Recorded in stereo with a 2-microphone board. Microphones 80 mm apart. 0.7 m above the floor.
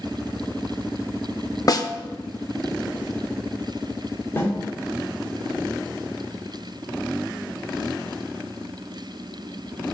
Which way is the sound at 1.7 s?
50° left (ahead or behind).